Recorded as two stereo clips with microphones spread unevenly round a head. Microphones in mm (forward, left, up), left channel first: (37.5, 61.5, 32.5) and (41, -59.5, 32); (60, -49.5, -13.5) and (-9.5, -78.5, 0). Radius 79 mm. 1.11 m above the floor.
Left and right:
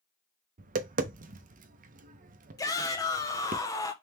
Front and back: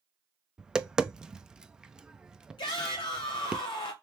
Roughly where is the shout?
Ahead left.